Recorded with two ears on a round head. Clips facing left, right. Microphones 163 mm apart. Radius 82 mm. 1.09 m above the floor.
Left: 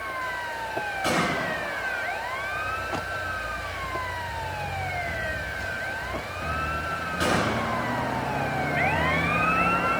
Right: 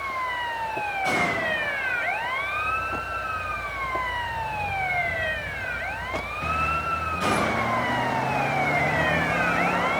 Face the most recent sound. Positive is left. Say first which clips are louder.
# left 1 dB
turn(degrees=85)